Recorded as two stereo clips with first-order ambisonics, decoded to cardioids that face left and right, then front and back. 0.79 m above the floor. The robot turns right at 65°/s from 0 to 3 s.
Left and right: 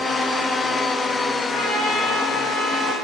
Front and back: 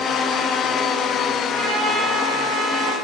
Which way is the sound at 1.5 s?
100° left.